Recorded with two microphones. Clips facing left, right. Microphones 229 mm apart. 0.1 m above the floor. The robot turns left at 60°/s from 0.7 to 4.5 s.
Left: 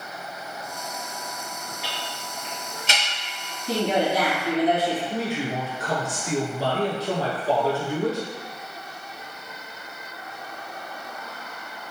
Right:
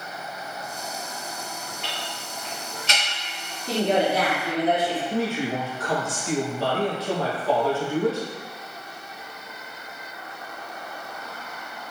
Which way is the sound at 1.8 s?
10° left (ahead or behind).